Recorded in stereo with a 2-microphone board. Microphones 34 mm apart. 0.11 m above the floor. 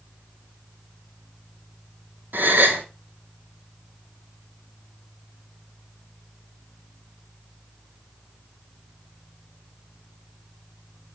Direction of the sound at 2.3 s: 70° right (ahead or behind).